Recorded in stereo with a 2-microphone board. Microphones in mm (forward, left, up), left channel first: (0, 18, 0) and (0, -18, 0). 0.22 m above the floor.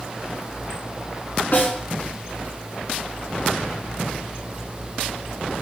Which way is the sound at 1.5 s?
60° left (ahead or behind).